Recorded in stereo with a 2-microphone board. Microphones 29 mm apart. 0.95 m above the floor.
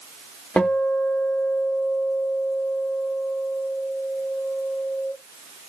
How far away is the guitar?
About 0.9 m.